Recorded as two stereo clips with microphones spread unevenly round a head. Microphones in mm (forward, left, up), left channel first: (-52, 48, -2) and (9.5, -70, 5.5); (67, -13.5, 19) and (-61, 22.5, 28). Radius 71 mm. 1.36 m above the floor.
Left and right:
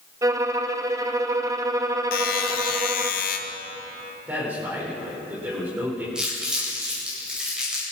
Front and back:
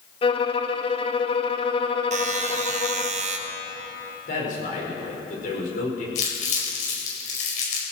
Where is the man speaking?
15° left, 5.5 m.